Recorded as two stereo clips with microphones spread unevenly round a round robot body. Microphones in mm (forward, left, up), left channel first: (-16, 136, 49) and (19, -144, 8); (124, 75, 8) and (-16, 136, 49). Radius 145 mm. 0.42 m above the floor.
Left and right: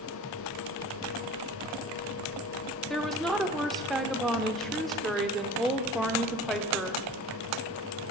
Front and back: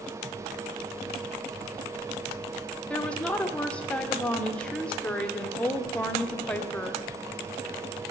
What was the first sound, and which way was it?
A woman speaking, 10° right.